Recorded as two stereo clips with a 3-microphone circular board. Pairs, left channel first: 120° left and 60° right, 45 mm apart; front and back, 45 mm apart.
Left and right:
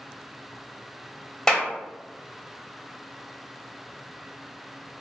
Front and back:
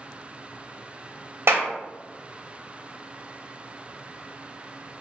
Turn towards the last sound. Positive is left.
turn(degrees=-165)